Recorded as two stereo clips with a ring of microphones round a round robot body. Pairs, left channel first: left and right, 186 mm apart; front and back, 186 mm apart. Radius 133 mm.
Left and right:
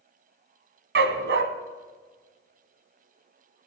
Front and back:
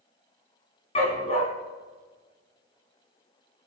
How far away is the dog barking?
About 1.6 m.